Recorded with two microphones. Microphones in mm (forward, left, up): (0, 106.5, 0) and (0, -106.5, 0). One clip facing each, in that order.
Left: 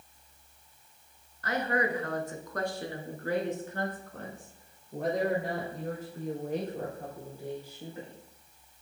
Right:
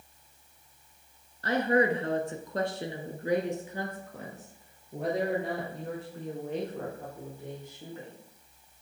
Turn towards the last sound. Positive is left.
turn(degrees=10)  # may be behind; listen again after turning